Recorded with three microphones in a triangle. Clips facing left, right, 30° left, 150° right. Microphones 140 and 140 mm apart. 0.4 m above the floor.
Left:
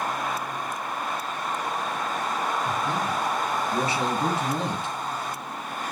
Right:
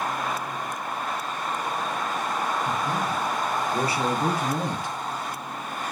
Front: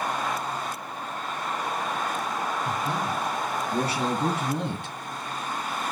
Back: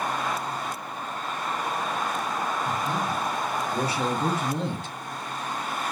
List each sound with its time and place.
2.6 s a man speaking: 25° left, 4 m